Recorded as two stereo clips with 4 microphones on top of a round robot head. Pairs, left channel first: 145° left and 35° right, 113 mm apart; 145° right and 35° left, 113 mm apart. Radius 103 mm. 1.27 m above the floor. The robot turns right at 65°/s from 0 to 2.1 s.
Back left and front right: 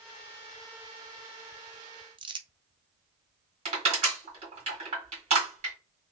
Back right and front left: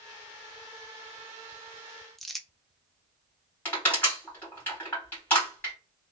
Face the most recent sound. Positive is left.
turn(degrees=-70)